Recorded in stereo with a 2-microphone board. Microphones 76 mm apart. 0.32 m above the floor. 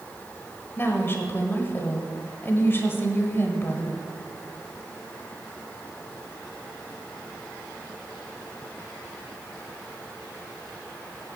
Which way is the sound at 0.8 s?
30° left (ahead or behind).